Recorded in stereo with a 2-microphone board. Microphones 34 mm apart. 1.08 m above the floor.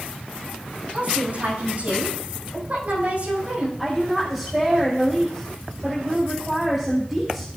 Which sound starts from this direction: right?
A woman speaking, at 0.9 s.